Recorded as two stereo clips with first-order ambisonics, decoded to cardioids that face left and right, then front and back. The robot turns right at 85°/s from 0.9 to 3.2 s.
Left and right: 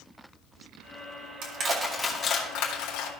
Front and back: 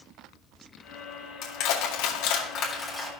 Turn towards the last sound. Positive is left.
turn(degrees=110)